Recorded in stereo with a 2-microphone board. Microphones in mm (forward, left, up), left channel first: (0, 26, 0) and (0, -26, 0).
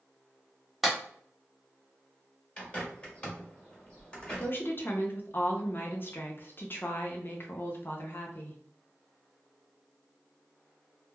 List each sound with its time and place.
0.8 s a clap: 5° right (ahead or behind), 0.8 m
2.6 s a bird: 20° left (ahead or behind), 1.0 m
4.4 s a woman speaking: 45° left (ahead or behind), 0.6 m